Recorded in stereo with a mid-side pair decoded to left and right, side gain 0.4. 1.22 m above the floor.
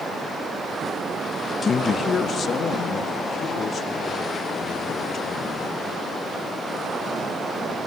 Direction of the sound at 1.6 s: 45° left.